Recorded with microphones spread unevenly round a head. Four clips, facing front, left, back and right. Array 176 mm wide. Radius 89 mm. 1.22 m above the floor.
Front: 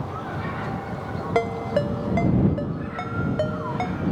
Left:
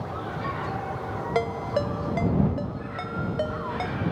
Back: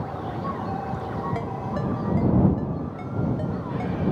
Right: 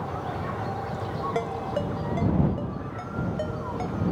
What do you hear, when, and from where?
1.4 s a ringtone: 20° left